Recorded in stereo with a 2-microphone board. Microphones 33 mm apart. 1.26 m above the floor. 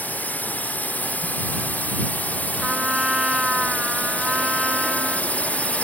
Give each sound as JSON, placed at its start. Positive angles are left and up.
{"t": 0.0, "sound": "a drone", "side_deg": 60}
{"t": 2.6, "sound": "a trumpet", "side_deg": -15}